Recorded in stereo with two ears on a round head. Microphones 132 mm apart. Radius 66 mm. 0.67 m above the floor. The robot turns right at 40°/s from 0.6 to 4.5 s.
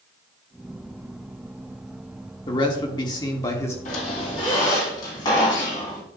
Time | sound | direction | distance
2.5 | a man speaking | 90° left | 1.2 m
3.9 | a squeak | 55° left (ahead or behind) | 2.5 m